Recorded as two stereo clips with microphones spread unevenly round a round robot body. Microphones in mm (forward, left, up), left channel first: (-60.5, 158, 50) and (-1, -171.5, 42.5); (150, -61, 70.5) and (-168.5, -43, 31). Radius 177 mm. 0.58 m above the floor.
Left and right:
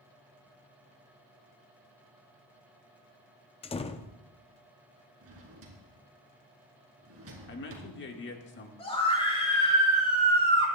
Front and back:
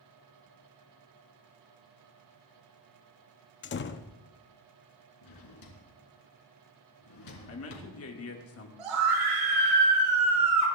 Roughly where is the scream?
Behind.